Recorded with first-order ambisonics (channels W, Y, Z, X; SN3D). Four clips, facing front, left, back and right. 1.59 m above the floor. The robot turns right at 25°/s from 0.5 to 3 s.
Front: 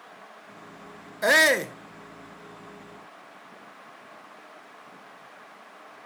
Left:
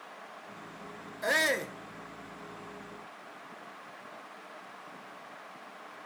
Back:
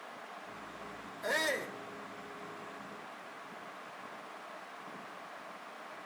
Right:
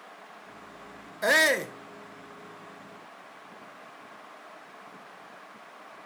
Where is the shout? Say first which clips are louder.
Right 6 dB, front 14 dB; 25° right, 0.8 m; by 1.8 s 10° right, 0.8 m.